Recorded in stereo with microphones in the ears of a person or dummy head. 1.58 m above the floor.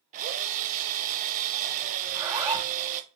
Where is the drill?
45° right (ahead or behind), 0.8 m.